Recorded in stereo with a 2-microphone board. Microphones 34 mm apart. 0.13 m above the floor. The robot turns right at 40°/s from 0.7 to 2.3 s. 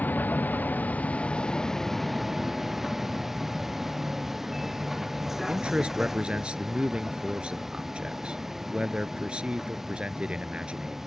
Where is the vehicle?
55° left (ahead or behind); by 11.1 s 10° right (ahead or behind).